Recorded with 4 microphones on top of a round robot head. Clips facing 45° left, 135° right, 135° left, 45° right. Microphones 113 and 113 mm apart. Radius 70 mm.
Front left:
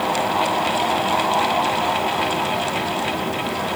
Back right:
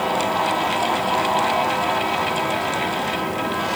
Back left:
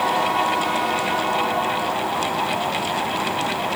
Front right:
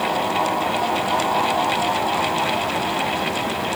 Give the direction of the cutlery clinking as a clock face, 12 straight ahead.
No cutlery clinking in this recording.